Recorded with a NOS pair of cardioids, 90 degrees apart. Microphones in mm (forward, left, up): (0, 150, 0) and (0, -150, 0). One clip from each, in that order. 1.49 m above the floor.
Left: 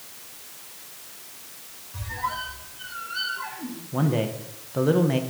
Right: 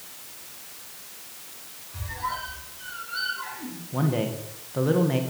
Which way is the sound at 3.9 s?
10° left.